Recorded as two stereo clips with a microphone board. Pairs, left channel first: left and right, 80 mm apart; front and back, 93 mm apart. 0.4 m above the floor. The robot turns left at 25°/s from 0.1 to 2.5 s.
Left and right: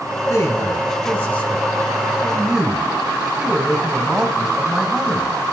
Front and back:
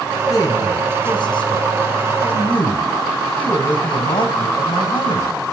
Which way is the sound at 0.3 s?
50° left.